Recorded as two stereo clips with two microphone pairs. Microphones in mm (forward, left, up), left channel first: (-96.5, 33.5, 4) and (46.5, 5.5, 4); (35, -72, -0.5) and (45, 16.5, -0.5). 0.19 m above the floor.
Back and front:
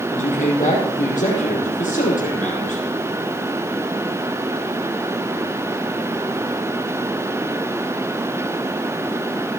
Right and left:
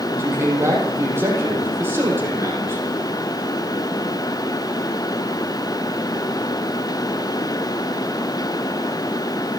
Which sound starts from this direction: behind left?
A man speaking, at 0.1 s.